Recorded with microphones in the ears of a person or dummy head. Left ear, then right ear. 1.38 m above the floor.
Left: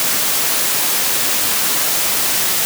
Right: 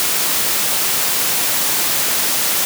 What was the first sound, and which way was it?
Only background noise.